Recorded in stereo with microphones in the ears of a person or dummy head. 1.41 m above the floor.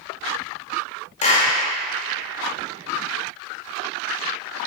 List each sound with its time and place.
1.2 s a clap: 40° left (ahead or behind), 2 m